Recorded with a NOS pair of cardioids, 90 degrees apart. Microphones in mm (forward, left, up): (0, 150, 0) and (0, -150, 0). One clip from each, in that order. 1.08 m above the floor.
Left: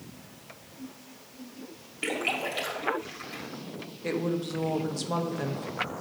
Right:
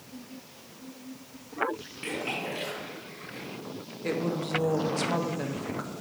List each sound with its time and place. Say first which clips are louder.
2.0 s a splash: left 4 dB; 65° left, 2 m
4.0 s a woman speaking: even; straight ahead, 1.0 m